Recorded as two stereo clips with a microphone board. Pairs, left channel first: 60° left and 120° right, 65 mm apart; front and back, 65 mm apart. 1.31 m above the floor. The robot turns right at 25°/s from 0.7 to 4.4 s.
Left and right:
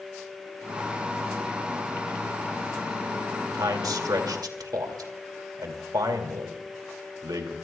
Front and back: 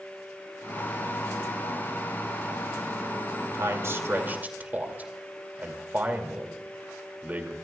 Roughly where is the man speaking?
Behind right.